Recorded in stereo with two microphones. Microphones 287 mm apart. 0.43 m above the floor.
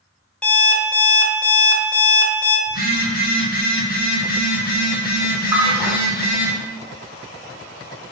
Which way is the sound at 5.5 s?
10° right (ahead or behind).